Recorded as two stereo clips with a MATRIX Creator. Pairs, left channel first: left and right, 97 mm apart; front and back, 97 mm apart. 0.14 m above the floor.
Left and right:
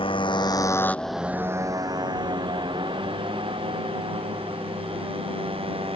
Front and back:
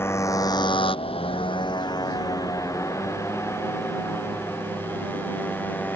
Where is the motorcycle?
65° left; by 6.0 s 70° right.